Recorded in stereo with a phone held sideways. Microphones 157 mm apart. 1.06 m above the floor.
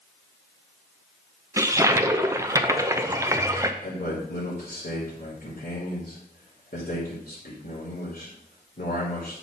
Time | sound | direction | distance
1.6 | a toilet flushing | 20° right (ahead or behind) | 0.7 m
3.8 | a man speaking | 60° left (ahead or behind) | 3 m